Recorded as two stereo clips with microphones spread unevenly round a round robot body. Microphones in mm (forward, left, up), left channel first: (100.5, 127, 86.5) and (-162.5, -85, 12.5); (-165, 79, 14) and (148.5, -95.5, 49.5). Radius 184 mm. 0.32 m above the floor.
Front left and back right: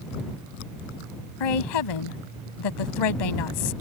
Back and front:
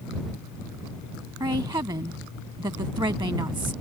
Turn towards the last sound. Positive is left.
turn(degrees=50)